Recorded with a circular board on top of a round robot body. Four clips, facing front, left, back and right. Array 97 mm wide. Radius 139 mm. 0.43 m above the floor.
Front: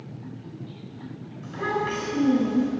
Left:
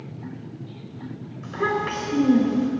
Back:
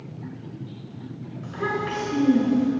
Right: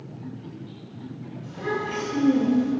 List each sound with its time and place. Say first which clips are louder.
1.4 s a child speaking: left 4 dB, even; 100° left, 4.5 m